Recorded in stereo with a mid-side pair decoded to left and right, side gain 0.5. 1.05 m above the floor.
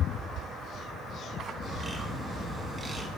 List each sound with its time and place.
1.6 s a bird: 30° right, 6 m